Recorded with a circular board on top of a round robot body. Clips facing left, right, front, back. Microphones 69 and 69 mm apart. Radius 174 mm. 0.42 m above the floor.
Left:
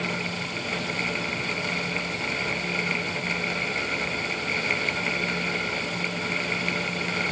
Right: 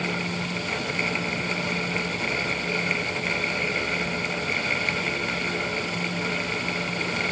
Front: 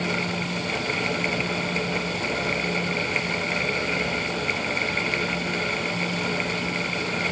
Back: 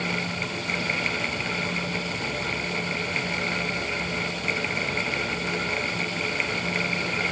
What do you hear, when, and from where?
Only background noise.